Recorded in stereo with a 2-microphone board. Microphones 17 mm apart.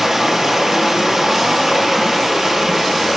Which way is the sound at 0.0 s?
25° right (ahead or behind).